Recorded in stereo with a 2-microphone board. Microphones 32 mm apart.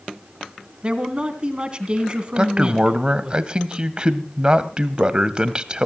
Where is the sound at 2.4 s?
30° right (ahead or behind), 1.1 m.